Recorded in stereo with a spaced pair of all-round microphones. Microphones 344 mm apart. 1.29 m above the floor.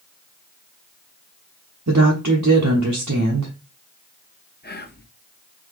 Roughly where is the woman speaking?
Right.